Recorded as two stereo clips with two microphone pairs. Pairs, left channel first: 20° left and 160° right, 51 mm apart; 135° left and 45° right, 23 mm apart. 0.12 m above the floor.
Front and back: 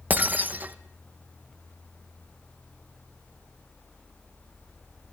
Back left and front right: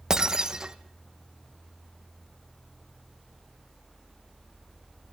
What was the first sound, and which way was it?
Breaking glass, 105° right.